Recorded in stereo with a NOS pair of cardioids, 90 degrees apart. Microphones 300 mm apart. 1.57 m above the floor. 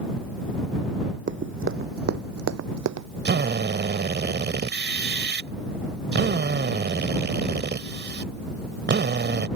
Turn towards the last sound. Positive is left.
turn(degrees=-35)